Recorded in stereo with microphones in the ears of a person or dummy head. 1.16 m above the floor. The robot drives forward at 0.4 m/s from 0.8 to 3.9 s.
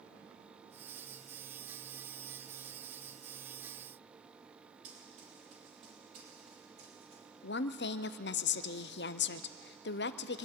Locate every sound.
4.8 s running footsteps: 50° right (ahead or behind), 7 m; by 7.2 s 35° right (ahead or behind), 5 m
7.4 s a woman speaking: 50° left (ahead or behind), 0.5 m